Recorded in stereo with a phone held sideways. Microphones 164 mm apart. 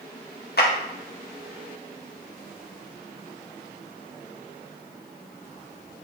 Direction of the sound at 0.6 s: 65° left (ahead or behind).